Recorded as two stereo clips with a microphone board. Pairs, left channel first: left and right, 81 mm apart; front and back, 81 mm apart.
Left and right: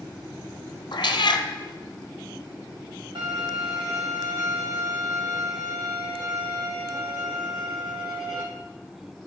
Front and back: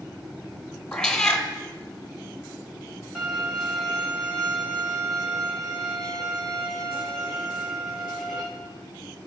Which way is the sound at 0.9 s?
80° left.